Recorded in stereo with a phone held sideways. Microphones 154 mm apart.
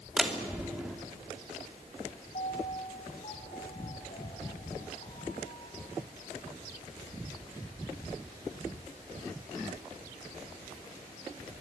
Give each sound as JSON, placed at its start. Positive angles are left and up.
{"t": 0.2, "sound": "a door slam", "side_deg": -5, "distance_m": 2.5}
{"t": 2.3, "sound": "a piano", "side_deg": 55, "distance_m": 6.0}